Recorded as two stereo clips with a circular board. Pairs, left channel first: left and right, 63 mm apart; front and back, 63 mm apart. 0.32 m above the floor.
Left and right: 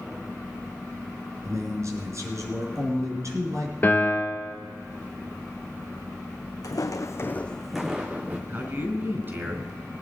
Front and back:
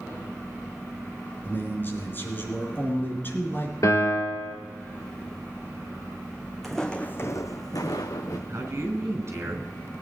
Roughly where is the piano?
Ahead left.